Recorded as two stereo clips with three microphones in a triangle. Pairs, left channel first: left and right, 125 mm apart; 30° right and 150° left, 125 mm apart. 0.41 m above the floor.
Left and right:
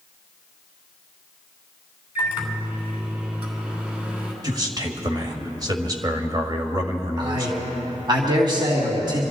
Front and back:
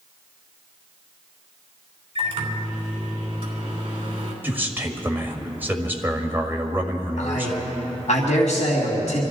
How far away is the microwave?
About 3 m.